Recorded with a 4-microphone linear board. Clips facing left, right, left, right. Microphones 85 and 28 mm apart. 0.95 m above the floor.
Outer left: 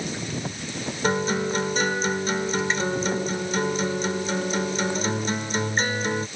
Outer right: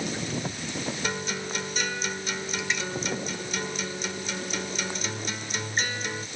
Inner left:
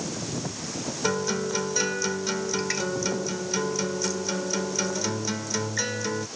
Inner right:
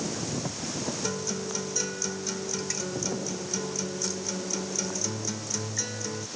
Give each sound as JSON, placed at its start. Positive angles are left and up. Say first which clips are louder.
{"t": 1.0, "sound": "a guitar", "louder": "outer left 8 dB, inner left 6 dB", "side_deg": 40}